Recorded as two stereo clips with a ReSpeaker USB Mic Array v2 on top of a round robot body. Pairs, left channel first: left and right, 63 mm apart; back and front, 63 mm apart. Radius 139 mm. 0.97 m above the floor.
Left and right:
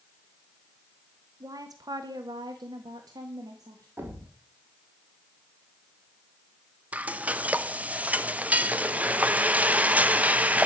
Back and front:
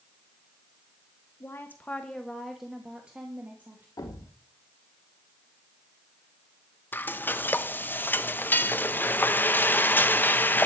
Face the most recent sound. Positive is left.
turn(degrees=-145)